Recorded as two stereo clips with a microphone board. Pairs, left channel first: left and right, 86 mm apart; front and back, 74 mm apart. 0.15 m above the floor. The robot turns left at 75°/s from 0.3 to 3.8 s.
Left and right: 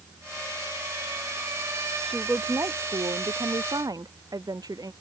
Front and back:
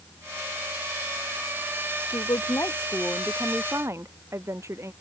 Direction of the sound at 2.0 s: Straight ahead.